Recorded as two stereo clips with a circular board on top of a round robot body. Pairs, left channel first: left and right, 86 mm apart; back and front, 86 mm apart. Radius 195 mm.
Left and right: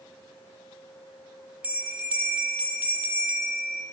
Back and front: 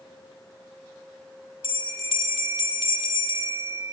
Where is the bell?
165° right, 0.7 m.